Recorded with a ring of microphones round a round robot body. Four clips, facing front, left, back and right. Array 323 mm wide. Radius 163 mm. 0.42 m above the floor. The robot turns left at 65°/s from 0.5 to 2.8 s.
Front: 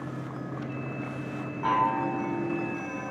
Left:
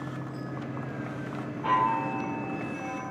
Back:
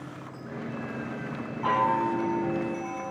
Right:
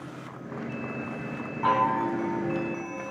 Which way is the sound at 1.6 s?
85° right.